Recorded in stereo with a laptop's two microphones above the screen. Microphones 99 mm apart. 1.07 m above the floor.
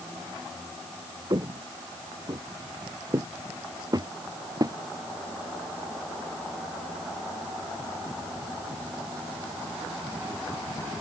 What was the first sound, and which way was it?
Footsteps, 40° right (ahead or behind).